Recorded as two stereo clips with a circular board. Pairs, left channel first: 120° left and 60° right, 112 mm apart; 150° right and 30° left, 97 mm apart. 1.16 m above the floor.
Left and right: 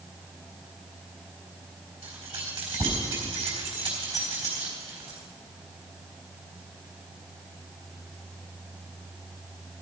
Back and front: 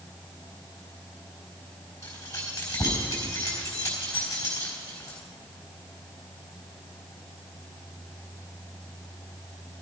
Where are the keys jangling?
90° right, 4 m.